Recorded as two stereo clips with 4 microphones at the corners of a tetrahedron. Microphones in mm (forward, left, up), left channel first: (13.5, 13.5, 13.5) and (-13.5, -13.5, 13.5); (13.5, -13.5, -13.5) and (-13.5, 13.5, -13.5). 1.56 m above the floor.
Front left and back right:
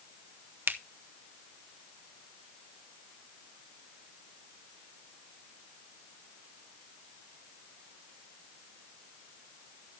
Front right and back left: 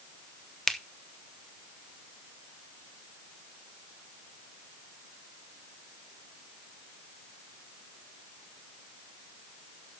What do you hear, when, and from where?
0.7 s a finger snap: 125° right, 0.8 m